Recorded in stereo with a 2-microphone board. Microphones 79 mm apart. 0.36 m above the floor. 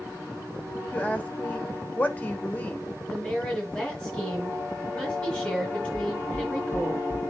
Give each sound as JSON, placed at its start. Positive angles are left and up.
{"t": 0.9, "sound": "a woman speaking", "side_deg": 20, "distance_m": 1.4}
{"t": 3.1, "sound": "a woman speaking", "side_deg": 15, "distance_m": 4.5}
{"t": 5.9, "sound": "knocking", "side_deg": 20, "distance_m": 3.0}